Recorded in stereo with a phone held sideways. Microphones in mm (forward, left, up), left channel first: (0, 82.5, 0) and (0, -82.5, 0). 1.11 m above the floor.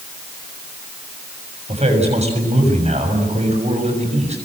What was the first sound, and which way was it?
A man speaking, 40° right (ahead or behind).